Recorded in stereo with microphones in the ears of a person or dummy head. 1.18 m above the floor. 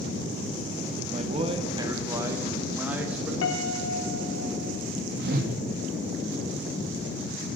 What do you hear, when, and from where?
1.1 s a man speaking: 35° right (ahead or behind), 1.1 m; by 3.3 s 5° right (ahead or behind), 1.9 m
3.4 s a piano: 65° left (ahead or behind), 1.0 m
5.2 s a whoosh: 60° right (ahead or behind), 1.0 m